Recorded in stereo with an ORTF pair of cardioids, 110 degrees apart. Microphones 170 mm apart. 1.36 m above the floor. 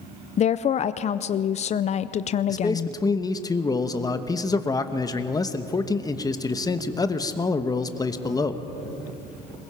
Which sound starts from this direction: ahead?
A man speaking, at 2.5 s.